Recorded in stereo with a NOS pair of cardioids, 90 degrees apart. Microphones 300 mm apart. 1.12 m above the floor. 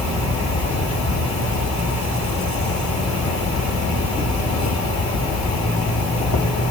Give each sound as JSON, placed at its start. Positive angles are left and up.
{"t": 0.0, "sound": "an insect", "azimuth_deg": 70, "distance_m": 3.0}